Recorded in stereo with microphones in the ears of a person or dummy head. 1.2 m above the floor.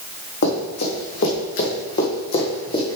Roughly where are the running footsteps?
Left.